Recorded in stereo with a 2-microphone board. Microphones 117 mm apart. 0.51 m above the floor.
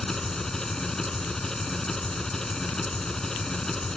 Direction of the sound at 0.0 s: 5° left (ahead or behind).